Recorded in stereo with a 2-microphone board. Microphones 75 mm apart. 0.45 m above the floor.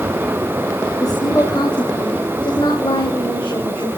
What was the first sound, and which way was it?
A woman speaking, 50° left (ahead or behind).